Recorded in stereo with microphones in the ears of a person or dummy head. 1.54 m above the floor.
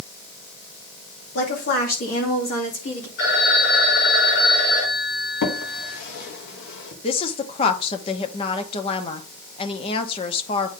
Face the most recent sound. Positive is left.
turn(degrees=30)  # may be behind; listen again after turning